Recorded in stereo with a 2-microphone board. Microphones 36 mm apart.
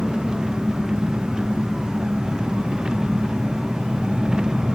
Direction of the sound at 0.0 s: 20° right (ahead or behind).